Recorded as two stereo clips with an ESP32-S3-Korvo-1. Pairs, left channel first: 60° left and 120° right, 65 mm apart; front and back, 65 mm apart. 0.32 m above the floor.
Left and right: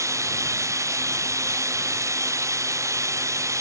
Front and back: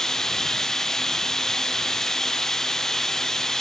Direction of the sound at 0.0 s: 80° right.